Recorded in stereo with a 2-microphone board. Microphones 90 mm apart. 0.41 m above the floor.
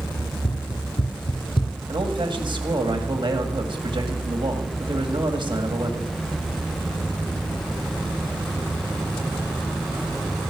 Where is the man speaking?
65° right (ahead or behind), 2 m.